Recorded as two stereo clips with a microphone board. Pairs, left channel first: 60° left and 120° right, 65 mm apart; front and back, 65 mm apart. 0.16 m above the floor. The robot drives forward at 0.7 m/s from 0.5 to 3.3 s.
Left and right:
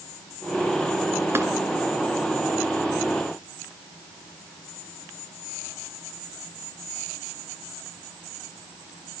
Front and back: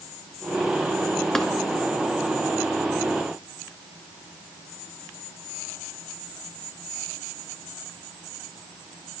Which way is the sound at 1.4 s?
80° right.